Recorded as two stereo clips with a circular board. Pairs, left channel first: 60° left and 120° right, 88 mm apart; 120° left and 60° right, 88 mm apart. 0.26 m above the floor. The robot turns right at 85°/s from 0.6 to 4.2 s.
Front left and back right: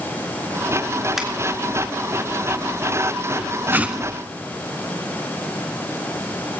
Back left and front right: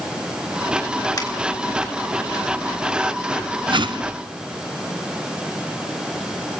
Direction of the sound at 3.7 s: 55° right.